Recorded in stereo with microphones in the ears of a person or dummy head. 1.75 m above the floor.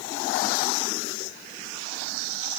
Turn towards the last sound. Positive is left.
No sound to turn to.